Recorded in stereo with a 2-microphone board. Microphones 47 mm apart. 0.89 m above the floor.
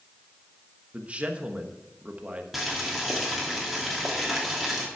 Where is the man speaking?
30° right (ahead or behind), 1.1 m.